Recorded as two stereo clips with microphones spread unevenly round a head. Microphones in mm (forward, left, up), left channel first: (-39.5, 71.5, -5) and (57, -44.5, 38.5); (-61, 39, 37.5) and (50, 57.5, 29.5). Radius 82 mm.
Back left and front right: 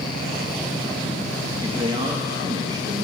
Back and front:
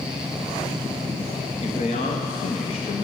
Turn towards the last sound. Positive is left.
turn(degrees=-120)